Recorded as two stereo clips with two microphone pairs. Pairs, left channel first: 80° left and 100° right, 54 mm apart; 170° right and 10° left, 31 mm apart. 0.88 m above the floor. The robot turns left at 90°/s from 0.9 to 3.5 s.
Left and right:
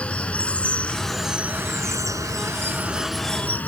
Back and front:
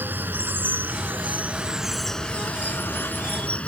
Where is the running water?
15° left; by 3.7 s 140° left.